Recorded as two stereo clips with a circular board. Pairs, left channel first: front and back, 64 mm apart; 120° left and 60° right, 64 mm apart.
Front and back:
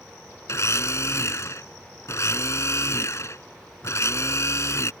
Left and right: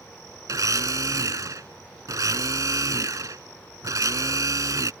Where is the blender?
35° right.